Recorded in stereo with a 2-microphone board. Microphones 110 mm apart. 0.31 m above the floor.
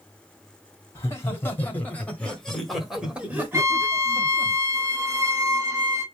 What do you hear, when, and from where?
0.9 s laughter: 25° left (ahead or behind), 1.8 m; by 4.5 s 35° right (ahead or behind), 1.4 m
3.5 s a violin: 30° right (ahead or behind), 0.9 m